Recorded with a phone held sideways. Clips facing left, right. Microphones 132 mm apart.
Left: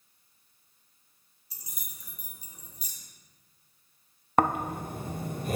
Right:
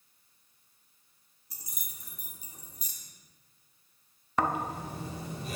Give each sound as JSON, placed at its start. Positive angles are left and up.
{"t": 1.5, "sound": "keys jangling", "side_deg": -45, "distance_m": 1.7}
{"t": 4.4, "sound": "snoring", "side_deg": 50, "distance_m": 0.6}